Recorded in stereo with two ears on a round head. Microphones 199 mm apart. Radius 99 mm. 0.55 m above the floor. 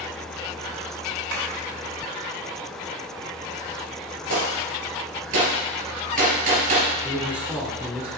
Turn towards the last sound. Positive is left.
turn(degrees=-5)  # may be behind; listen again after turning